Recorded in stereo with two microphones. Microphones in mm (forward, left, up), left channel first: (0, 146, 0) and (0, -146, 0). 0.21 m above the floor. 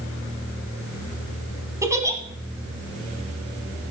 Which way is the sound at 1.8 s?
10° right (ahead or behind).